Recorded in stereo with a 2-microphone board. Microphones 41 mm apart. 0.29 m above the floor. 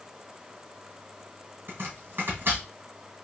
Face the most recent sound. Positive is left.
turn(degrees=-55)  # may be behind; listen again after turning